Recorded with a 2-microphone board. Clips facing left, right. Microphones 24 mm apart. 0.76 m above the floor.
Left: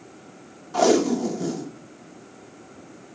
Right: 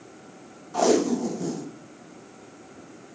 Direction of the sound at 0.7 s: 25° left (ahead or behind).